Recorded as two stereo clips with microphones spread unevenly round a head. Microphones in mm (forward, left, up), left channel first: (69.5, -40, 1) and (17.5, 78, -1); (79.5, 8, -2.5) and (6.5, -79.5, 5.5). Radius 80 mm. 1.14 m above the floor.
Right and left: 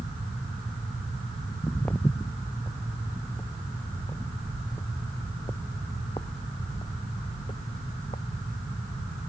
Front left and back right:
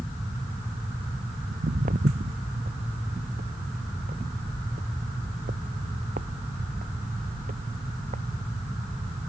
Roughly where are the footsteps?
Behind right.